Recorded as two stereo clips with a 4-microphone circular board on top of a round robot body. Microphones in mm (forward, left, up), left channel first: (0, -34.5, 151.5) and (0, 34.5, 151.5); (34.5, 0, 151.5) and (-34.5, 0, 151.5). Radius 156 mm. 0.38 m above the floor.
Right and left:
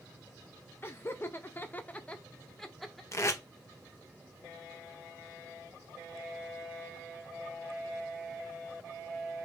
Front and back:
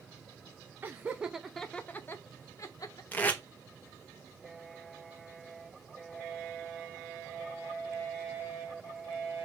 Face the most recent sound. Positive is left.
turn(degrees=-60)